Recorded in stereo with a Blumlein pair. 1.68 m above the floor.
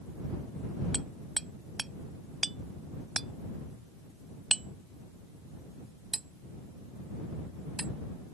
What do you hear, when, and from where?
0.9 s hammering: 10° right